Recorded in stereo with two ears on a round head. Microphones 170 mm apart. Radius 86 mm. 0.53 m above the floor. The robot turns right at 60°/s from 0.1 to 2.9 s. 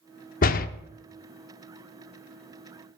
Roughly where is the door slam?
Left.